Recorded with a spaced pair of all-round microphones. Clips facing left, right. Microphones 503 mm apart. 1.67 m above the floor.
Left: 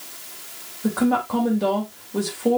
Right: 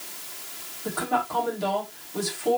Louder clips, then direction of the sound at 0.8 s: Left 10 dB; 90° left.